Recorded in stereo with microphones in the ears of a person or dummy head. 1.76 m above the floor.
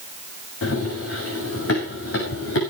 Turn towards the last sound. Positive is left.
turn(degrees=70)  # may be behind; listen again after turning